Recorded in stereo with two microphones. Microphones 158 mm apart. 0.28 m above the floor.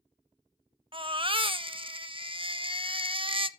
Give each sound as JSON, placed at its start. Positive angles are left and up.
{"t": 0.9, "sound": "a baby crying", "side_deg": -30, "distance_m": 0.5}